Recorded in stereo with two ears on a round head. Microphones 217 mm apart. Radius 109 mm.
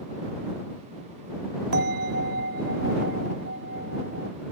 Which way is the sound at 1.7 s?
45° right (ahead or behind).